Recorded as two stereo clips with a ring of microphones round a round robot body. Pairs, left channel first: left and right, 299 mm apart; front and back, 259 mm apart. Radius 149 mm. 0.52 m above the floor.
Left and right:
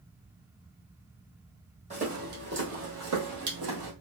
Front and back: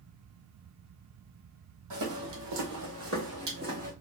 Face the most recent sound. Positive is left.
turn(degrees=-110)